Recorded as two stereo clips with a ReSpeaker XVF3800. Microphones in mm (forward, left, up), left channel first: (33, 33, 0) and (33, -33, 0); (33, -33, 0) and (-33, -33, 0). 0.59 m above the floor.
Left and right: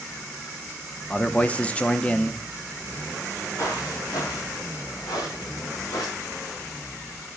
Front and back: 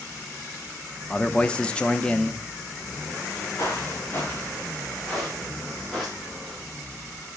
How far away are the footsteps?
About 4 m.